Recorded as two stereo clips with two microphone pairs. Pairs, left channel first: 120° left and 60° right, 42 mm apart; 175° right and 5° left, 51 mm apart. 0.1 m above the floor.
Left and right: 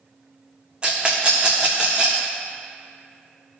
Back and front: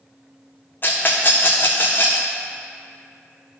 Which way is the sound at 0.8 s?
125° right.